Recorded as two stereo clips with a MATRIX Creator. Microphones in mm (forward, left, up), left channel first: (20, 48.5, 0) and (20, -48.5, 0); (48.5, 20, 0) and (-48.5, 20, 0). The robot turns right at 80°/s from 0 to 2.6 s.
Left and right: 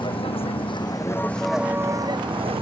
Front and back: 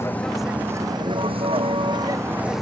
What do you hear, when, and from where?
0.0 s a vehicle: 60° left; by 2.6 s 90° right